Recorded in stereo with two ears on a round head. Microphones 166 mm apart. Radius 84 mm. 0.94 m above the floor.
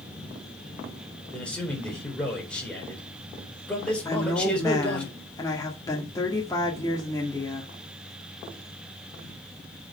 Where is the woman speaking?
20° left (ahead or behind), 1.9 m.